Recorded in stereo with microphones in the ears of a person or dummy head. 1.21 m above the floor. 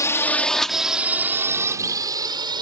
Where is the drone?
15° left (ahead or behind); by 2.6 s 25° right (ahead or behind).